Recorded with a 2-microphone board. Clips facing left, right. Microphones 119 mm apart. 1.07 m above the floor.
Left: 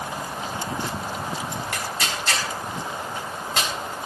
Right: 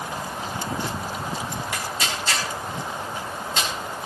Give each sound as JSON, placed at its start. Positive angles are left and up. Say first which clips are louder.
{"t": 1.7, "sound": "tearing paper", "louder": "even", "side_deg": 65, "distance_m": 4.0}